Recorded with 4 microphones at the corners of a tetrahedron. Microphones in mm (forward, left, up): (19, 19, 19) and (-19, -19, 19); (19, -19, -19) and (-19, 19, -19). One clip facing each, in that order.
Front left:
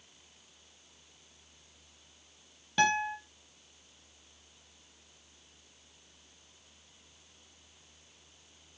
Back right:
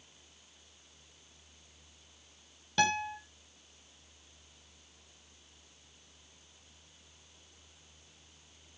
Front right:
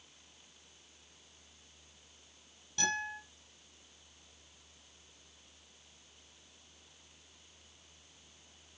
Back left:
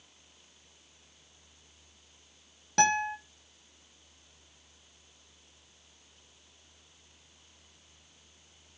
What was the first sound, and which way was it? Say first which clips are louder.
A guitar: front left 2 dB, back left 10 dB; 125° left.